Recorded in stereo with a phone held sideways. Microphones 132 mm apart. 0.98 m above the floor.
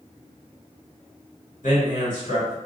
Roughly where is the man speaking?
Left.